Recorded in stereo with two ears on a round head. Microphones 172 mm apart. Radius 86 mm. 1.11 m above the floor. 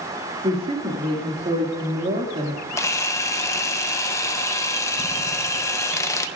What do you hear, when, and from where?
0.4 s a woman speaking: 30° right (ahead or behind), 2 m
2.8 s a camera shutter: 15° left (ahead or behind), 0.8 m